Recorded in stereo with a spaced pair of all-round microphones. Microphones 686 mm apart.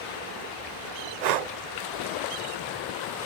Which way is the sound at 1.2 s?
75° right (ahead or behind).